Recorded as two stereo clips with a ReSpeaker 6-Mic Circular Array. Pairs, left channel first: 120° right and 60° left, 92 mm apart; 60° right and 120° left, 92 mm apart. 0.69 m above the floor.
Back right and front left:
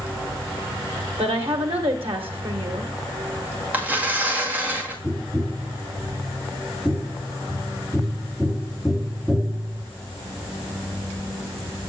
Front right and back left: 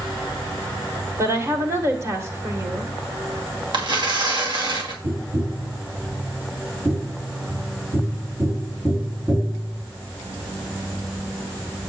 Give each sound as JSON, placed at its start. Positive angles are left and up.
{"t": 1.2, "sound": "a woman speaking", "azimuth_deg": 60, "distance_m": 2.0}
{"t": 3.7, "sound": "tearing paper", "azimuth_deg": 130, "distance_m": 2.0}
{"t": 5.0, "sound": "tapping", "azimuth_deg": 155, "distance_m": 1.5}